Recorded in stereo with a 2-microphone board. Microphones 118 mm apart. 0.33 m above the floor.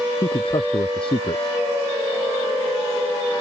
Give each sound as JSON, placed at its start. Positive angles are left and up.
{"t": 0.2, "sound": "a man speaking", "side_deg": 45}